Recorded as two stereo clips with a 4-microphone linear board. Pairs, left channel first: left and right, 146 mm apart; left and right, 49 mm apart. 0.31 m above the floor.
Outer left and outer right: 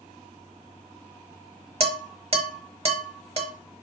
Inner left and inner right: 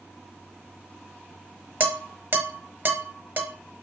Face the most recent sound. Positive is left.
turn(degrees=-40)  # may be behind; listen again after turning